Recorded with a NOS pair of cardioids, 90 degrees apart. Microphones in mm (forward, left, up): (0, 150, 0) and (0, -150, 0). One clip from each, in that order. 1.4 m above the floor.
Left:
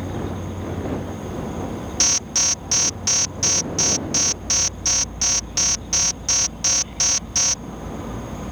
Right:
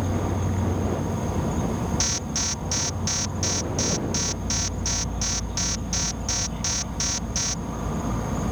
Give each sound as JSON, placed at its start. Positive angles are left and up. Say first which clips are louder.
{"t": 0.0, "sound": "an insect", "louder": "right 1 dB", "azimuth_deg": -40}
{"t": 2.0, "sound": "an alarm", "louder": "left 9 dB", "azimuth_deg": 25}